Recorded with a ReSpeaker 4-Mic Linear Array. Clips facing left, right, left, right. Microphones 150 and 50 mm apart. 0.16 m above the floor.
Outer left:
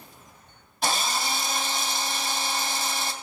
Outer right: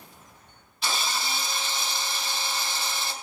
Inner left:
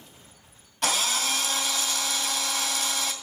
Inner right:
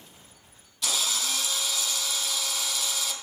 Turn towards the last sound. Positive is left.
turn(degrees=50)  # may be behind; listen again after turning